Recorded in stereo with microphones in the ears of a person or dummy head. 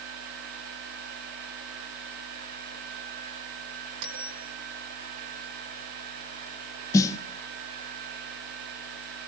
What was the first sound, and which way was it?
A bell, 65° right (ahead or behind).